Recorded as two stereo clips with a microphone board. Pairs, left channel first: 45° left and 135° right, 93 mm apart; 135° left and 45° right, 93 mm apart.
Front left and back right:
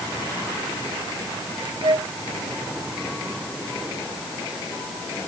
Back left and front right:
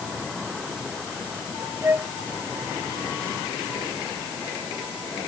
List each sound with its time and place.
1.8 s a flute: 105° right